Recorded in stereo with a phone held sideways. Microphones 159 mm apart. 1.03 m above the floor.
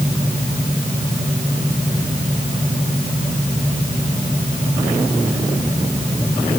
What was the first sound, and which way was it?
Only background noise.